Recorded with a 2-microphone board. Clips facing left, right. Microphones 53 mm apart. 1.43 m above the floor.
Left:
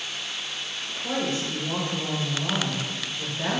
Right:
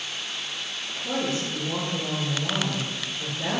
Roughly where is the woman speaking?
Left.